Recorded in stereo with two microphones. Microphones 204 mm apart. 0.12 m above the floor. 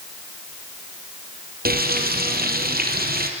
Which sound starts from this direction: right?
Frying, at 1.6 s.